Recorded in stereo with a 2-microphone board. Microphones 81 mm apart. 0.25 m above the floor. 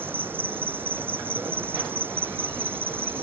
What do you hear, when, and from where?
0.0 s an insect: 25° right (ahead or behind)